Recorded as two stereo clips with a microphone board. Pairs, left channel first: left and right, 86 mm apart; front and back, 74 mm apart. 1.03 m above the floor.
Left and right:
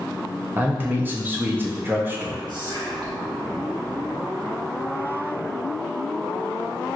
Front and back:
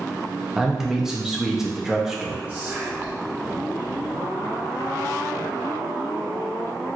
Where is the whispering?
110° right, 1.1 m.